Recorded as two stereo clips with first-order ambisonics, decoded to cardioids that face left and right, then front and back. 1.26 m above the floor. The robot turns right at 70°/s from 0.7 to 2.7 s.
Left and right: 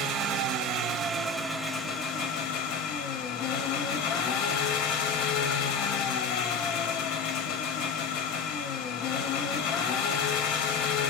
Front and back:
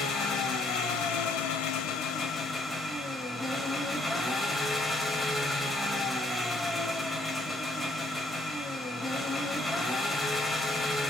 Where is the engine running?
55° right, 0.9 m; by 11.1 s 85° left, 0.9 m.